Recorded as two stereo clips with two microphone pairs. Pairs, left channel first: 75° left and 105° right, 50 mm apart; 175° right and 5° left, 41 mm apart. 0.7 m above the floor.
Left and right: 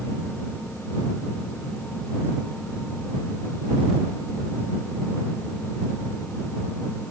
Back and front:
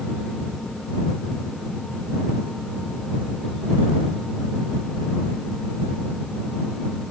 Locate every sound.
Only background noise.